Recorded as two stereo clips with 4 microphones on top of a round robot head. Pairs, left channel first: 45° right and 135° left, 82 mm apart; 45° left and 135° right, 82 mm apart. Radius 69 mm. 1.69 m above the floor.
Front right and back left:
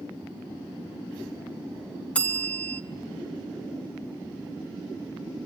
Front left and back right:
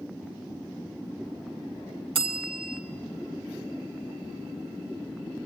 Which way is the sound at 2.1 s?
120° right.